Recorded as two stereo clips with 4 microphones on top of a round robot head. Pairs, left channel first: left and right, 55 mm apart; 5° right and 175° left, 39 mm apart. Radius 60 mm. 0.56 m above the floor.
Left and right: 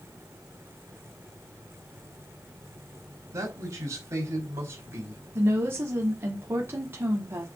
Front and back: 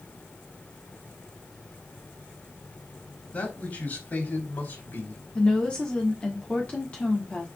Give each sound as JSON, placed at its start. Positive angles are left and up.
{"t": 3.3, "sound": "a man speaking", "azimuth_deg": -60, "distance_m": 3.5}
{"t": 5.3, "sound": "a woman speaking", "azimuth_deg": -60, "distance_m": 1.4}